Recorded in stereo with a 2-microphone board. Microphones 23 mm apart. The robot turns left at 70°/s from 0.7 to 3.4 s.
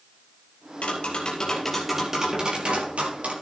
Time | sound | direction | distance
0.8 | tapping | 70° left | 4.5 m